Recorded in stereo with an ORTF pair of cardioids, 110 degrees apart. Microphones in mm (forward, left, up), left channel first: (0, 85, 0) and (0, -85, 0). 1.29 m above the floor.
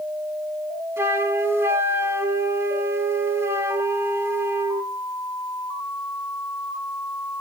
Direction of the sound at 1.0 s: 15° right.